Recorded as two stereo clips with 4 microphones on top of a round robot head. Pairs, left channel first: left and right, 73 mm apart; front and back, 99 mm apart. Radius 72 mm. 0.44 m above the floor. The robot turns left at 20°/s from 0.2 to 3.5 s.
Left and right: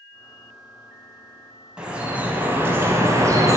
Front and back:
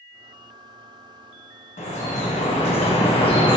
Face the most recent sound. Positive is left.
turn(degrees=-45)